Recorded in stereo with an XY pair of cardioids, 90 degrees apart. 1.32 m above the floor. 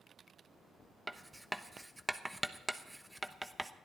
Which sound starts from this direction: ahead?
Writing, at 1.1 s.